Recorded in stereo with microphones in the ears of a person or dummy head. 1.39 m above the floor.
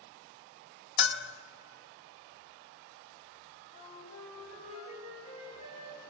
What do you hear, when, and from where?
1.0 s a bell: 60° left (ahead or behind), 0.8 m
3.7 s a flute: 35° left (ahead or behind), 5.5 m